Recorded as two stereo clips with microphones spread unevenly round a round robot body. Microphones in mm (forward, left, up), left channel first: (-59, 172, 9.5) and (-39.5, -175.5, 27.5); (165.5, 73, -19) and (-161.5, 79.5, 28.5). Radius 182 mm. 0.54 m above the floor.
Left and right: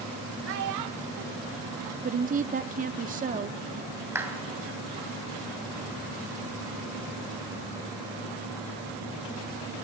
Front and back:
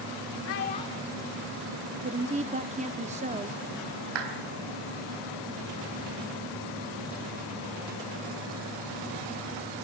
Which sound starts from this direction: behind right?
A woman speaking, at 2.0 s.